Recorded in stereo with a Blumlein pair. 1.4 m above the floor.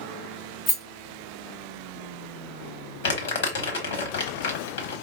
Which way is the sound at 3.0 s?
55° left.